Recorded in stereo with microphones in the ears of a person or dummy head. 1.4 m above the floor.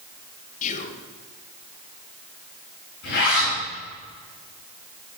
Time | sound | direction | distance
0.6 | whispering | 40° left (ahead or behind) | 1.1 m
3.0 | a zipper | 60° left (ahead or behind) | 5.5 m